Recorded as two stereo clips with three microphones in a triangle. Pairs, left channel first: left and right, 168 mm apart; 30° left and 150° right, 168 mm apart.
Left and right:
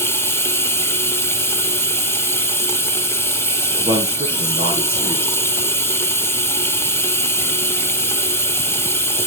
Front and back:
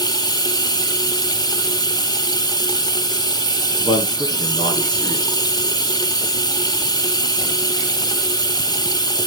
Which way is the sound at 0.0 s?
40° left.